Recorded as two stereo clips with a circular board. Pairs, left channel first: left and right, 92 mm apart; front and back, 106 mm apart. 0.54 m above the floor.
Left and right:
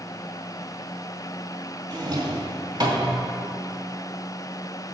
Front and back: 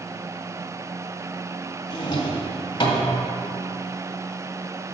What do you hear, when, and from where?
1.9 s a drawer: 45° right, 1.6 m